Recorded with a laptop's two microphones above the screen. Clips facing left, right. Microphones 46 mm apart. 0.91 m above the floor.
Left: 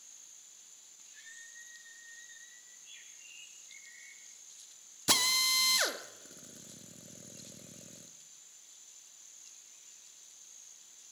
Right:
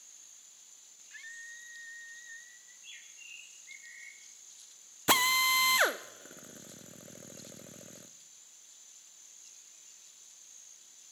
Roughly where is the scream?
Right.